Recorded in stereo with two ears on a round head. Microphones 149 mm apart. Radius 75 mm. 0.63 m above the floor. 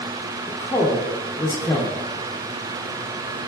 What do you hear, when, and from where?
0.5 s a woman speaking: 15° left (ahead or behind), 0.5 m